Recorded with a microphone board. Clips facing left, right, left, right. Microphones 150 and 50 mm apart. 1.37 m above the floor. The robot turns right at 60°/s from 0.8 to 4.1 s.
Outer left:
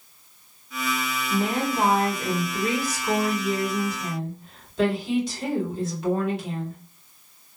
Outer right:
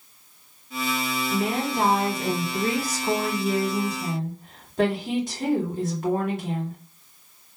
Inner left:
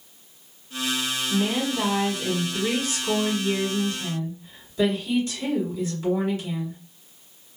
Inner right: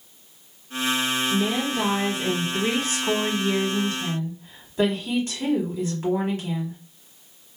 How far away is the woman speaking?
About 2.0 m.